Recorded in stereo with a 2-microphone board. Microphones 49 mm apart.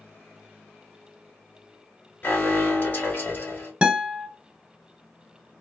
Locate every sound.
2.2 s an alarm: 35° left (ahead or behind), 1.2 m
3.8 s a guitar: 25° right (ahead or behind), 0.9 m